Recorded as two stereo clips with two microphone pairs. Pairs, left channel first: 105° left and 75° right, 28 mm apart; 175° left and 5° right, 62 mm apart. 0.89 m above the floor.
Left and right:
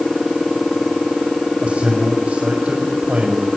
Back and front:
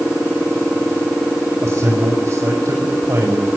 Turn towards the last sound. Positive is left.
turn(degrees=-60)